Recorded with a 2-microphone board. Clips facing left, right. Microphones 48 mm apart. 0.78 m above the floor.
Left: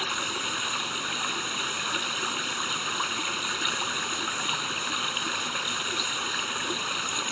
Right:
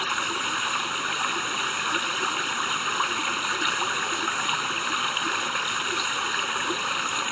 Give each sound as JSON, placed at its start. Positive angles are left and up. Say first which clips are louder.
{"t": 0.0, "sound": "running water", "louder": "right 4 dB", "side_deg": -20}